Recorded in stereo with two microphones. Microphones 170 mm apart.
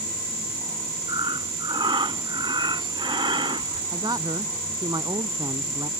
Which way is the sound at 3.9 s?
25° right (ahead or behind).